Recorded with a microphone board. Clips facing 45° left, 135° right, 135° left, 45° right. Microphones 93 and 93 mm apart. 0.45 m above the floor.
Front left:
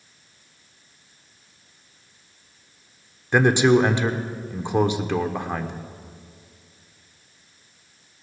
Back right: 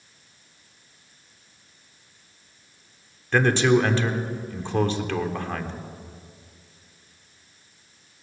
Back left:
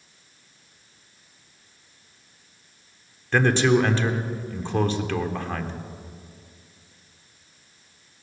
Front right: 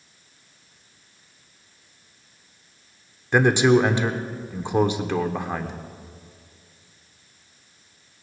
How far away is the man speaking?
About 1.0 m.